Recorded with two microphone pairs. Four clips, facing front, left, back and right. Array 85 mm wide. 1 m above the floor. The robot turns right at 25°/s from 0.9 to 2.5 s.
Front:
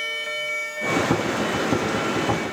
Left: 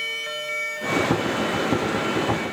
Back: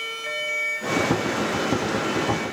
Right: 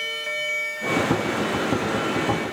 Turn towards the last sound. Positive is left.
No sound to turn to.